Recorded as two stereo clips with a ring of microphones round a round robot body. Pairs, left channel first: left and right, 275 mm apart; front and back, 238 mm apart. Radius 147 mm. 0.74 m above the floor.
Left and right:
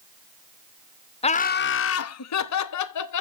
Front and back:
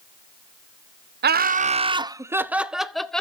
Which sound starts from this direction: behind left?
Laughter, at 1.2 s.